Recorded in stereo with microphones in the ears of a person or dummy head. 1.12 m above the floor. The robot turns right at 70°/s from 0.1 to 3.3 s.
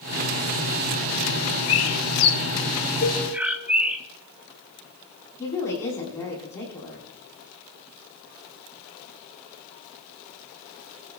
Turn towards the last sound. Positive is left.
turn(degrees=15)  # may be behind; listen again after turning